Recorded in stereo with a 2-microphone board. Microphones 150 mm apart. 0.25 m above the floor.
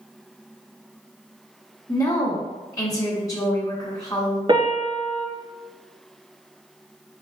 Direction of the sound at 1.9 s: 25° left (ahead or behind).